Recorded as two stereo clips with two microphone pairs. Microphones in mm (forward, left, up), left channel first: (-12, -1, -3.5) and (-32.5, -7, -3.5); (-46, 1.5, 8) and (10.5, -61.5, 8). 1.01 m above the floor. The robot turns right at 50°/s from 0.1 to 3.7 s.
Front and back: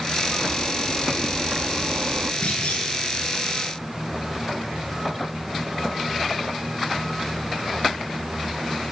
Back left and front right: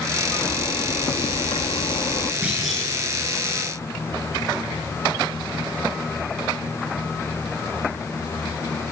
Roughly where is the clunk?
Ahead left.